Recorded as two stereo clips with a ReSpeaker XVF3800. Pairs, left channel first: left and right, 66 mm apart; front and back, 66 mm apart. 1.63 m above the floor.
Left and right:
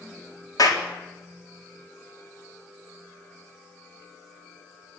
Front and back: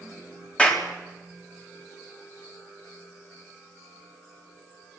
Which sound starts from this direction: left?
A clap, at 0.6 s.